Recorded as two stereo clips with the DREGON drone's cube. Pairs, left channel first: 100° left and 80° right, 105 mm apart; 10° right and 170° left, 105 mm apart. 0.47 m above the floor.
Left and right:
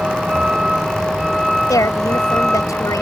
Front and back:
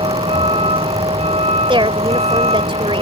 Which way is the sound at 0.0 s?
160° right.